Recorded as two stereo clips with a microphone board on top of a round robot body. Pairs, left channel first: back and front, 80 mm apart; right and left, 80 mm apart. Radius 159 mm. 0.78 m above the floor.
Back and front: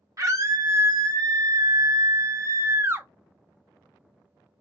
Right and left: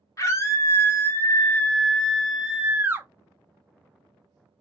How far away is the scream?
About 1.6 m.